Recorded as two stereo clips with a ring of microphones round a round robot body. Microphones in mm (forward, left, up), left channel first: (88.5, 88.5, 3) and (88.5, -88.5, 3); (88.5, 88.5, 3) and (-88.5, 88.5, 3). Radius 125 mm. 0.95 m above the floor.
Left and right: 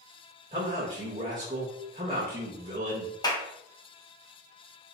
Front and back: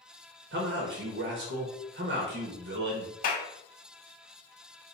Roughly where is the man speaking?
Behind.